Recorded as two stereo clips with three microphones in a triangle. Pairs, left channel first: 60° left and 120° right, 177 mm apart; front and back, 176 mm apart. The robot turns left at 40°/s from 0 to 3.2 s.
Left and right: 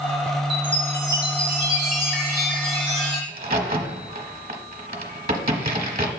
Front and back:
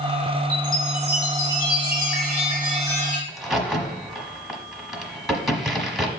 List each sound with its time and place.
0.5 s a chime: 150° left, 3 m; by 3.2 s 40° left, 3 m
3.3 s a crack: 90° right, 1.1 m